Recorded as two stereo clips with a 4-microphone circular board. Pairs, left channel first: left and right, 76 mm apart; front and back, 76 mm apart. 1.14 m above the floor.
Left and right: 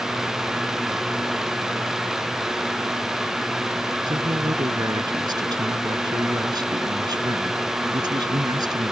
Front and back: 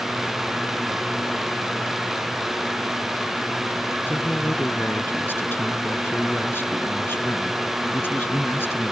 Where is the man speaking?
65° right.